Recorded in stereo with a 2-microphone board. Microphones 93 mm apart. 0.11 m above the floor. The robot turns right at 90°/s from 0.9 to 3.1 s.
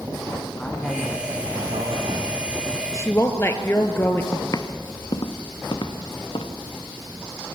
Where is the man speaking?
170° left, 5 m; by 2.8 s 20° right, 5 m.